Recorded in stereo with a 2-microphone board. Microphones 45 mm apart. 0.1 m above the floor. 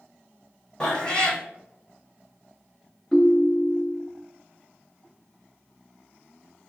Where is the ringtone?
10° left (ahead or behind), 0.5 m.